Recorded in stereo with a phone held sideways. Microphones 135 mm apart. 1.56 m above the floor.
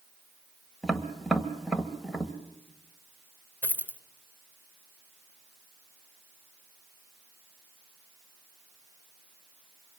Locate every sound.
0.8 s tapping: centre (ahead or behind), 1.8 m
3.6 s a dropped coin: 15° right (ahead or behind), 1.8 m